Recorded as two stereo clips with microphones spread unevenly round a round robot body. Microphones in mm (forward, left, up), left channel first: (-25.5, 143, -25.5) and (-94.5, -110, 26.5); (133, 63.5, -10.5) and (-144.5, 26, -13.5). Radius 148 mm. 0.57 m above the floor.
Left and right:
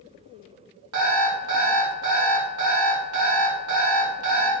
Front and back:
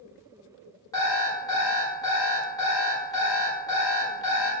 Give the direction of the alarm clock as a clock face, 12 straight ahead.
2 o'clock.